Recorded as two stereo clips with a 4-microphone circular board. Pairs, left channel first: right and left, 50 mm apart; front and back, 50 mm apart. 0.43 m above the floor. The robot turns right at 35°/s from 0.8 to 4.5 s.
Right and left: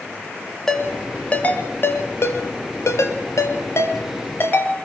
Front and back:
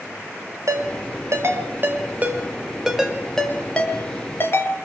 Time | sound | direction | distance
0.7 | a ringtone | 170° right | 4 m